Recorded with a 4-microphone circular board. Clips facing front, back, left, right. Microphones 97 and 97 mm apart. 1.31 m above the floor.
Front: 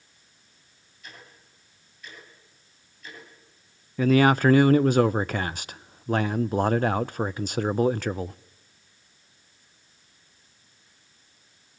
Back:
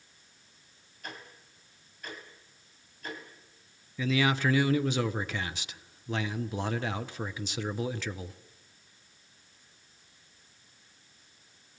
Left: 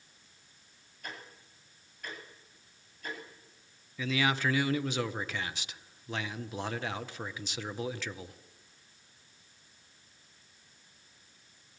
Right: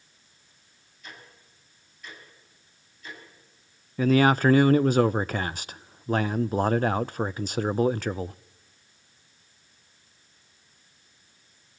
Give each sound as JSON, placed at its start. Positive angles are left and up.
{"t": 1.0, "sound": "ticking", "azimuth_deg": 135, "distance_m": 9.0}
{"t": 4.0, "sound": "a man speaking", "azimuth_deg": -45, "distance_m": 0.6}